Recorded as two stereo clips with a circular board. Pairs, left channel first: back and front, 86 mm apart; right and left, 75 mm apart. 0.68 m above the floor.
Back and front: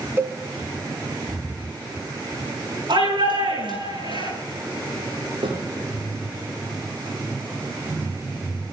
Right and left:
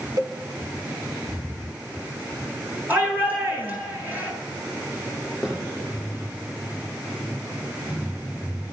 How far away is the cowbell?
About 1.0 m.